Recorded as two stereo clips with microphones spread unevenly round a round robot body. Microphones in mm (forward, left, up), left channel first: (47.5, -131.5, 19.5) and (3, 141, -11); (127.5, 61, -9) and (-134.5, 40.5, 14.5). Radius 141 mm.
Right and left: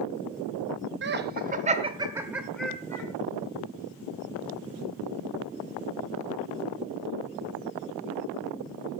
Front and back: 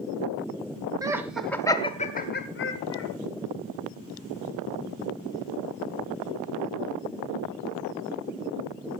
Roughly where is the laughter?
Left.